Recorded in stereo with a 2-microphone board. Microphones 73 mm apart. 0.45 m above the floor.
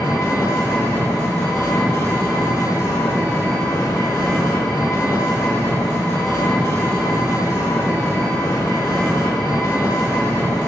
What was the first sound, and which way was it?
An engine running, 45° left (ahead or behind).